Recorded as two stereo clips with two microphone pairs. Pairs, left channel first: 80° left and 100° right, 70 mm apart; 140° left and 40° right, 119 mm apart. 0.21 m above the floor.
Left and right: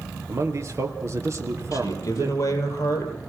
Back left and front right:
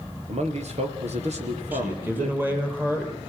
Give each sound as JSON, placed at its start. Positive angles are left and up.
{"t": 0.3, "sound": "a man speaking", "azimuth_deg": -55, "distance_m": 3.5}
{"t": 1.7, "sound": "a man speaking", "azimuth_deg": 35, "distance_m": 5.5}